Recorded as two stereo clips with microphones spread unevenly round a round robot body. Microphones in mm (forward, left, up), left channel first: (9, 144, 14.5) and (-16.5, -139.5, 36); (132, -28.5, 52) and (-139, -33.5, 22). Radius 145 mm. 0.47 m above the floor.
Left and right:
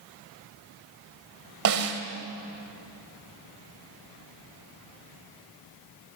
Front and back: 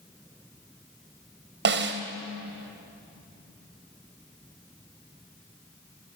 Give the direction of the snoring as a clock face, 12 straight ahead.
I don't hear snoring.